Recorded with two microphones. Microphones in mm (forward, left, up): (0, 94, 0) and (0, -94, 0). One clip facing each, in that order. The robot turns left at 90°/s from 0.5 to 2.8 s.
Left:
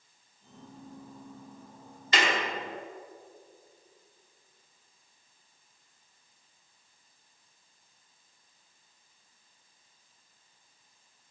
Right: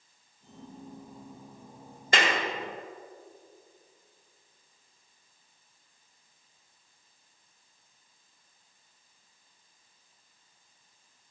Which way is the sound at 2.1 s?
45° right (ahead or behind).